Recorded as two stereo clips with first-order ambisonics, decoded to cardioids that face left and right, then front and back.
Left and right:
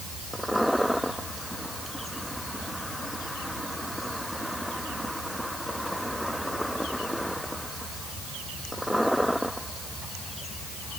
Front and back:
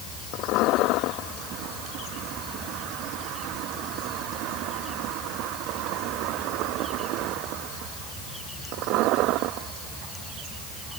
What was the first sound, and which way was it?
Only background noise.